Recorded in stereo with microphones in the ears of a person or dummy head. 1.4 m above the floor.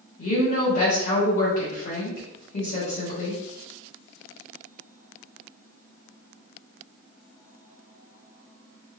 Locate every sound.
0.2 s a woman speaking: 50° left (ahead or behind), 1.3 m